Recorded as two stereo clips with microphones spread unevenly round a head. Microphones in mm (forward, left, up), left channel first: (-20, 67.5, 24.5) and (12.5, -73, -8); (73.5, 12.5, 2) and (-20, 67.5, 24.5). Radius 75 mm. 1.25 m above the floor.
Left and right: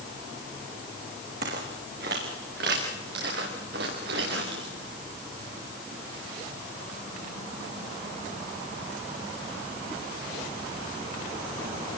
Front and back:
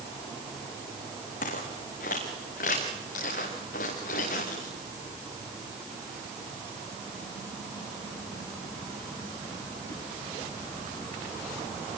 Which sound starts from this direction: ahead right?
Footsteps, at 1.4 s.